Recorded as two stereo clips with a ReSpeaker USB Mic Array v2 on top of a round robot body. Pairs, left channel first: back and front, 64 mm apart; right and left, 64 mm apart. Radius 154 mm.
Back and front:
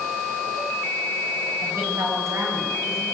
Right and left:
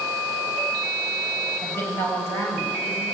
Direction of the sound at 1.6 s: 35° right.